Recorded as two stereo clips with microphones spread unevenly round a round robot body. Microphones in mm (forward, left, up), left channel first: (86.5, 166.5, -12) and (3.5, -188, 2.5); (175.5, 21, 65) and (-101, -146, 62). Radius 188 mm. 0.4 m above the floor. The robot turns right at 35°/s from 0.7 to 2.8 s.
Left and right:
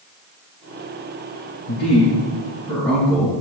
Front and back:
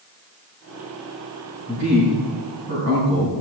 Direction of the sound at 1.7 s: 125° left.